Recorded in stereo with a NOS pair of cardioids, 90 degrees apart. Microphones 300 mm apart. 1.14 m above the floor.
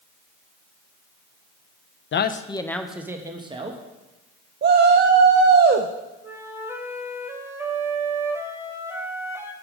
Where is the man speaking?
40° left, 0.5 m; by 3.8 s 20° right, 1.3 m.